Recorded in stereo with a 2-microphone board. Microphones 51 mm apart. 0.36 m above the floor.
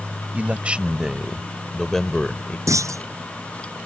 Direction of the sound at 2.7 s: 85° right.